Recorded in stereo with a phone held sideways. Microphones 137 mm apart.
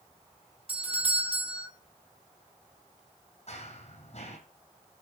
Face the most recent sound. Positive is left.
turn(degrees=55)  # may be behind; listen again after turning